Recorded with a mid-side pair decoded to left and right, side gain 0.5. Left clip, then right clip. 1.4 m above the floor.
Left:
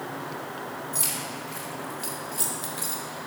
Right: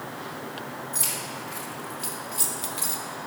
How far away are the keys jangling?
About 2 m.